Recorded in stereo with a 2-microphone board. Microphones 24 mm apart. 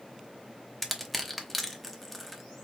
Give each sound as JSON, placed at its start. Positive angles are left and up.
{"t": 0.8, "sound": "crushing", "side_deg": 5, "distance_m": 0.9}